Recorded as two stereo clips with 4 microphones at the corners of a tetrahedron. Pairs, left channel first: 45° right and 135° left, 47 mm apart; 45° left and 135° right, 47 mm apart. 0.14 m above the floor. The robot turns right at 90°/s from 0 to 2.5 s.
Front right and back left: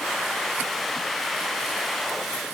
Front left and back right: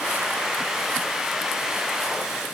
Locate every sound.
Only background noise.